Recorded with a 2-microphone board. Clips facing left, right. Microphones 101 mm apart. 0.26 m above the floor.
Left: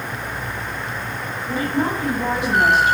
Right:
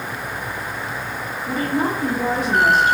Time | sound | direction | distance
1.5 | a woman speaking | 45° right (ahead or behind) | 4.5 m